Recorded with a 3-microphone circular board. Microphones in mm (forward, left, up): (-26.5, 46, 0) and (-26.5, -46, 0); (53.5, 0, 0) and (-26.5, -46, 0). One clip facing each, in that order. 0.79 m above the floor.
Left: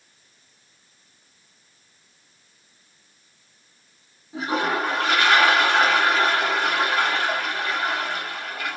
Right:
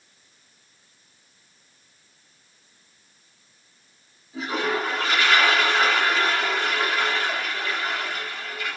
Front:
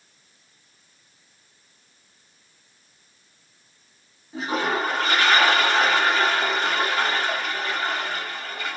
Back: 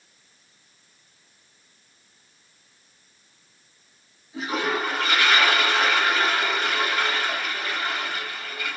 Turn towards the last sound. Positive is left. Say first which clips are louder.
# left 2 dB, front 1 dB
turn(degrees=75)